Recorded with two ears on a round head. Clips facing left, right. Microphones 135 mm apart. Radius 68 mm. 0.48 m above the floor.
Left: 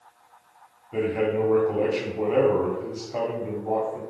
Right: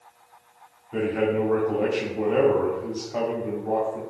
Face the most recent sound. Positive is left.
turn(degrees=10)  # may be behind; listen again after turning